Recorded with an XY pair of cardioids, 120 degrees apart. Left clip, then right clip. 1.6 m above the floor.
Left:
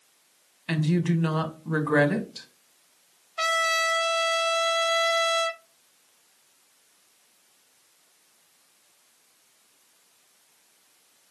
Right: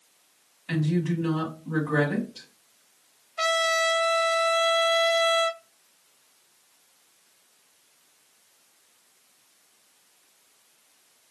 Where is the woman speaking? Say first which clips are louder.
Left 1 dB; 50° left, 1.4 m.